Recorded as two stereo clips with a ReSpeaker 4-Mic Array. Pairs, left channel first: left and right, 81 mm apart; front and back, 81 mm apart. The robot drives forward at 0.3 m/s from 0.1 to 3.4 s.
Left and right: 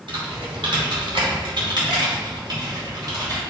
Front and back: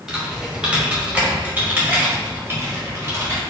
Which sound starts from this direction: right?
Typing on a keyboard, at 0.1 s.